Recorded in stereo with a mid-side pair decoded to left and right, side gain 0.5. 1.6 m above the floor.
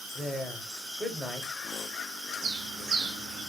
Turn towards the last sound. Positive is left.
turn(degrees=-65)